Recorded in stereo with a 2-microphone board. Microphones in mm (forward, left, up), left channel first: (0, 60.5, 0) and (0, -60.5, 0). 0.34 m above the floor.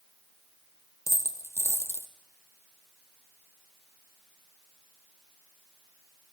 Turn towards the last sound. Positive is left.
turn(degrees=25)  # may be behind; listen again after turning